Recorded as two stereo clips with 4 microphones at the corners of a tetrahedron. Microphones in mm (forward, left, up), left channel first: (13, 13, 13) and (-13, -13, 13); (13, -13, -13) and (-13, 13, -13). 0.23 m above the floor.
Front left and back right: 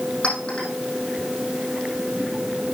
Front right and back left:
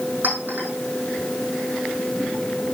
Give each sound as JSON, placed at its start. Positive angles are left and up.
{"t": 0.2, "sound": "a clink", "azimuth_deg": 100, "distance_m": 5.5}